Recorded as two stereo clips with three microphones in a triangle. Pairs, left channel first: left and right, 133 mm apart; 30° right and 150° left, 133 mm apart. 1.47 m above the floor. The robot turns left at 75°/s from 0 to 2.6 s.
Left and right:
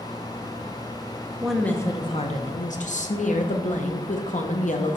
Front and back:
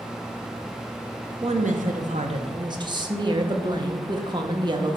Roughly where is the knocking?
I don't hear knocking.